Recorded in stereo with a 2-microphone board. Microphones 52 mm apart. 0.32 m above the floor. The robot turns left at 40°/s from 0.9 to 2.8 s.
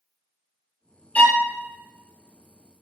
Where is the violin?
30° left (ahead or behind), 0.5 m; by 1.4 s 35° left (ahead or behind), 0.5 m.